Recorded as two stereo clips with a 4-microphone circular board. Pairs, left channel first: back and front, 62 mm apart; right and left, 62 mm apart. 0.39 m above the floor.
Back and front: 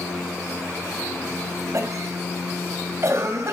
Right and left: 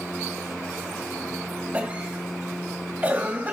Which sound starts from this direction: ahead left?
A cough, at 1.7 s.